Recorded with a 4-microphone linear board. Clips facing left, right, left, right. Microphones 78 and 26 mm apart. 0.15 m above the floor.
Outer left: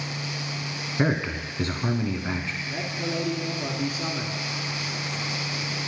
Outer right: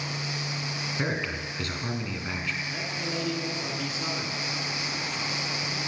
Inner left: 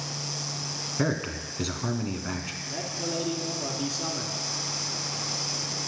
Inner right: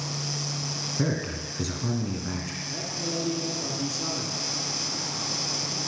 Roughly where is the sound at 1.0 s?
Left.